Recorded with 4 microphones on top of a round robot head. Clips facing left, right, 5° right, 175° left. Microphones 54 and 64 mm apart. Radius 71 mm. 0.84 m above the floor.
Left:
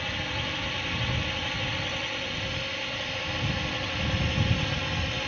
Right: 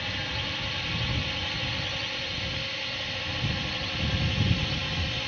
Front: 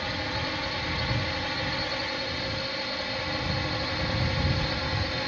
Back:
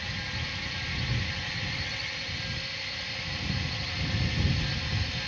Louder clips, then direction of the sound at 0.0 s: Left 1 dB, front 5 dB; 10° left.